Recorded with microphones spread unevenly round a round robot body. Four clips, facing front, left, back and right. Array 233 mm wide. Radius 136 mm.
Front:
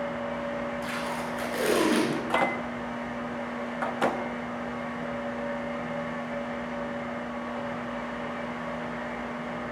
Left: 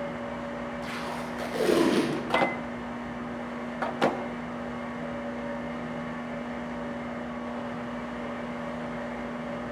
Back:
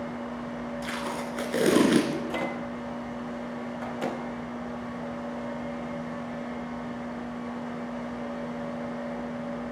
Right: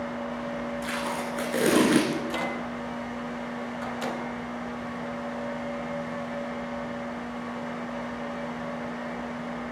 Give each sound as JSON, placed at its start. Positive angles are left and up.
{"t": 0.8, "sound": "tape being pulled", "azimuth_deg": -145, "distance_m": 2.5}
{"t": 2.1, "sound": "a microwave", "azimuth_deg": 80, "distance_m": 0.7}